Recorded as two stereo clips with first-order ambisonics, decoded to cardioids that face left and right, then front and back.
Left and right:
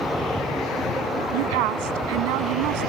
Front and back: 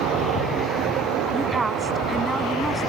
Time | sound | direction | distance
1.3 | a woman speaking | 100° right | ?